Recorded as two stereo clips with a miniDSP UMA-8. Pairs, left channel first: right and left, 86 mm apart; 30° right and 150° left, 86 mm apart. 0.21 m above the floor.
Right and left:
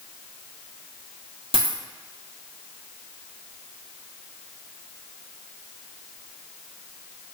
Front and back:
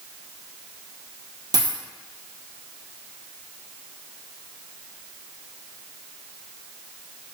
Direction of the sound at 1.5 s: 105° left.